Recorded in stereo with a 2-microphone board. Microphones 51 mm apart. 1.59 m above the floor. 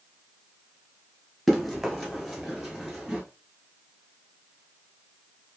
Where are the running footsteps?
5° left (ahead or behind), 1.6 m; by 3.2 s 10° right (ahead or behind), 1.5 m.